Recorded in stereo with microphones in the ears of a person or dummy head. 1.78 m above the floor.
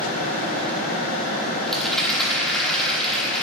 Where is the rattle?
Centre (ahead or behind), 1.2 m.